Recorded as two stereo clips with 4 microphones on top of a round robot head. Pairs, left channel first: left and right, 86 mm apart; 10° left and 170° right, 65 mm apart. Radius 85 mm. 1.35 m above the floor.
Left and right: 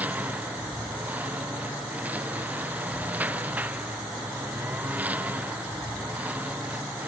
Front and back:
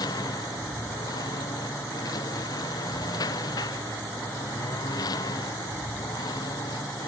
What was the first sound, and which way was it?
A lawn mower, 20° right.